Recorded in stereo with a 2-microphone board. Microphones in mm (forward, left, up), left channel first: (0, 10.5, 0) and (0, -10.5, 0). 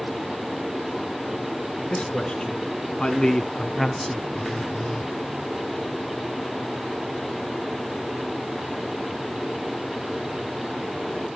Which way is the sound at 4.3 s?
30° left (ahead or behind).